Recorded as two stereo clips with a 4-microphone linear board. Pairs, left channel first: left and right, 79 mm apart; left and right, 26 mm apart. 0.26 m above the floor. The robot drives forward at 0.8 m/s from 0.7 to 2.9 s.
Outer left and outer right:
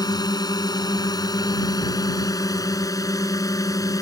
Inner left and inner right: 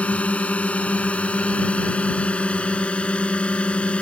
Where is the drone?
60° left (ahead or behind); by 4.0 s 50° left (ahead or behind).